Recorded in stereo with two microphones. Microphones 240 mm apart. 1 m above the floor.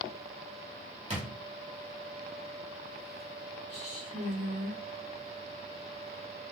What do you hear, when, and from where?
1.1 s a drawer: 25° right (ahead or behind), 1.3 m
3.7 s a woman speaking: 80° right, 3.5 m